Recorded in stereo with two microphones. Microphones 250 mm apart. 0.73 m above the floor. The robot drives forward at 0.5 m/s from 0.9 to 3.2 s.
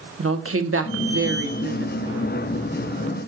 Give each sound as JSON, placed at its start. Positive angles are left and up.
{"t": 0.2, "sound": "a woman speaking", "side_deg": -55, "distance_m": 1.5}